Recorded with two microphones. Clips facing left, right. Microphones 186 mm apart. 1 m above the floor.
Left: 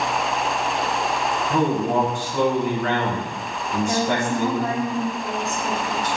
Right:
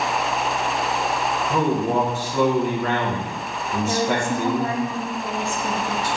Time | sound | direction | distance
1.5 | a man speaking | 5° right (ahead or behind) | 1.1 m
3.9 | a woman speaking | 30° right (ahead or behind) | 1.7 m